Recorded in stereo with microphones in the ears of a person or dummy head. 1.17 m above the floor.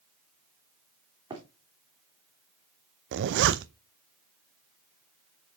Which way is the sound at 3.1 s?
60° right (ahead or behind).